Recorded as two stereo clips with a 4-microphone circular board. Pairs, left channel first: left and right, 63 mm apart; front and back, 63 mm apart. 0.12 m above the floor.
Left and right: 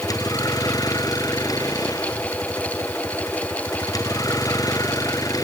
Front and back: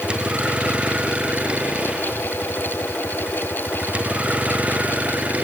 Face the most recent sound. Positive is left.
turn(degrees=110)